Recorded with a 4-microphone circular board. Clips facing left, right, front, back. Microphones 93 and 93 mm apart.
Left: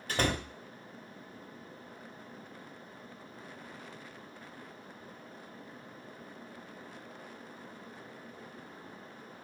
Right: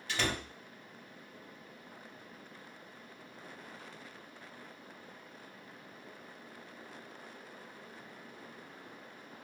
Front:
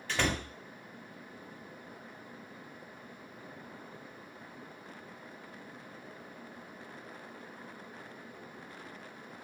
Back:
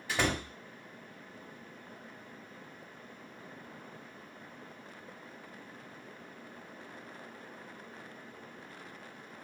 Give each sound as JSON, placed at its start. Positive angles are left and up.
{"t": 0.1, "sound": "a door slam", "azimuth_deg": 105, "distance_m": 0.6}